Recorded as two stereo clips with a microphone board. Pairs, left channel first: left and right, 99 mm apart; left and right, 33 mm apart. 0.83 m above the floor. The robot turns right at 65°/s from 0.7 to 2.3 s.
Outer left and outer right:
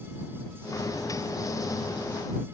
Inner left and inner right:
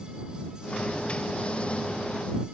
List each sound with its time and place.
Only background noise.